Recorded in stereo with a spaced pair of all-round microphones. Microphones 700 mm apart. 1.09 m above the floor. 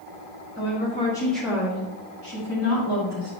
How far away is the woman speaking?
About 1.6 m.